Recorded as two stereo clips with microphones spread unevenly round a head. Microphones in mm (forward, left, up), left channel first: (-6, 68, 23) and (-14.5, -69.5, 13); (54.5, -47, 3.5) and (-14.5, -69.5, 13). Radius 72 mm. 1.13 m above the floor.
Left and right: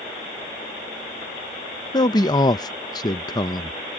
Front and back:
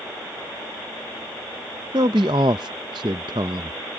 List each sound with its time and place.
1.9 s a man speaking: 150° left